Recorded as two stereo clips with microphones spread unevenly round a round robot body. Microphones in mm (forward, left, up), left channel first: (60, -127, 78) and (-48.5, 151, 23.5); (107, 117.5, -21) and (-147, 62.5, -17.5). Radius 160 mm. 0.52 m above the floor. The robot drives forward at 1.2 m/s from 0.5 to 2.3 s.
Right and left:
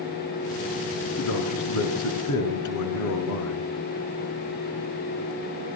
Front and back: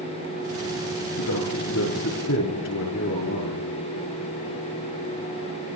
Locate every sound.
1.2 s a man speaking: 30° right, 9 m; by 3.8 s 35° right, 7.5 m